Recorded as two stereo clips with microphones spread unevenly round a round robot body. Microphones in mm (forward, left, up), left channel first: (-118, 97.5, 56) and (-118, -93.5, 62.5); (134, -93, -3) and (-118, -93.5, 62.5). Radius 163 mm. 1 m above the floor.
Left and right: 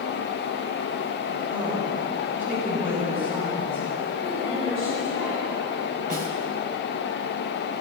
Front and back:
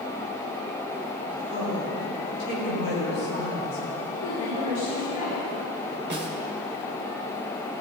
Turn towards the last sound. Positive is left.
turn(degrees=-130)